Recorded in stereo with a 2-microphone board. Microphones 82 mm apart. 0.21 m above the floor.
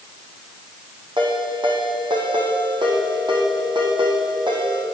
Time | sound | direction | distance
1.2 | a ringtone | 65° right (ahead or behind) | 6.5 m